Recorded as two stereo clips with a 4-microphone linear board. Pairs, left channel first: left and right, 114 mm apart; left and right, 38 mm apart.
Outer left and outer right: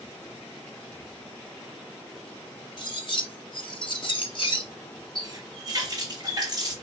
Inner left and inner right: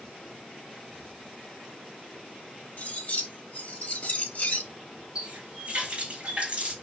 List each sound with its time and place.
2.8 s cutlery clinking: 45° left (ahead or behind), 0.8 m
5.2 s a running tap: 35° right (ahead or behind), 3 m